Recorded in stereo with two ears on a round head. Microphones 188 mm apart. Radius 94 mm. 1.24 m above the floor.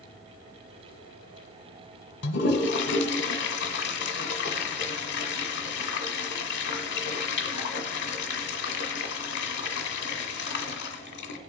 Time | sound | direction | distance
2.2 | a toilet flushing | 55° left (ahead or behind) | 1.4 m